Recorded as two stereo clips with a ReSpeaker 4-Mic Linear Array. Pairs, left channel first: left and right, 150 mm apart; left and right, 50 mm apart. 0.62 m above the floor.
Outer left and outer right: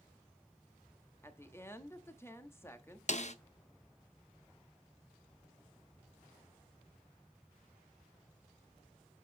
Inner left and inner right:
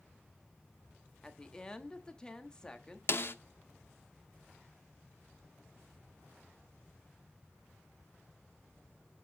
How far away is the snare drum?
About 0.7 m.